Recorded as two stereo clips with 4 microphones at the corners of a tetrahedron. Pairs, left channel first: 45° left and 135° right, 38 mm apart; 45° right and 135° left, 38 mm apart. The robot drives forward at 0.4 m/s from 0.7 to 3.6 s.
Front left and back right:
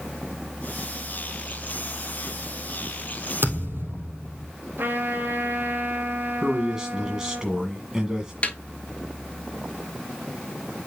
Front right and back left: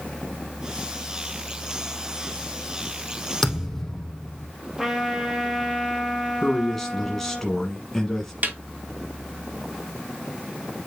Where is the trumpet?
150° right, 2 m.